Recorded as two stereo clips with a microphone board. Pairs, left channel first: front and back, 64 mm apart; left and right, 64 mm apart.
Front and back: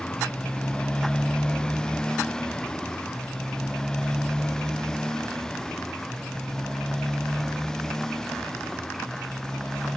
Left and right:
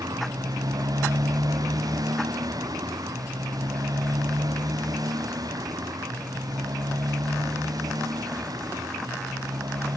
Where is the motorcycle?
75° right; by 10.0 s 85° right.